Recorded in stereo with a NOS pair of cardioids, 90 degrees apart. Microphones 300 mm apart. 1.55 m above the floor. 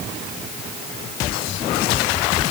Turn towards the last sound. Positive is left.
No sound to turn to.